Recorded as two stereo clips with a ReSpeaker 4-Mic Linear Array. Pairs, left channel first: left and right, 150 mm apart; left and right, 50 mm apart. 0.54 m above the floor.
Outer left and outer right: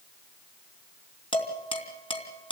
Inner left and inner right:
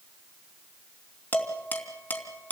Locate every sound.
1.3 s dishes clattering: 35° left (ahead or behind), 3 m